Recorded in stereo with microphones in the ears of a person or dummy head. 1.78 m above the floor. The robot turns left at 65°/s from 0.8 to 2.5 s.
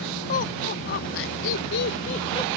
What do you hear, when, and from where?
0.3 s laughter: 45° left (ahead or behind); by 2.5 s 20° left (ahead or behind)